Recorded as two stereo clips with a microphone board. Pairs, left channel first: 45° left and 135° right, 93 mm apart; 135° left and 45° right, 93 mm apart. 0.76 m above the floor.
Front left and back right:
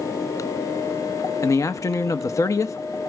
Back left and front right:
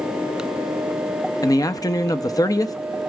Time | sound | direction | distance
1.4 | a man speaking | 95° left | 0.8 m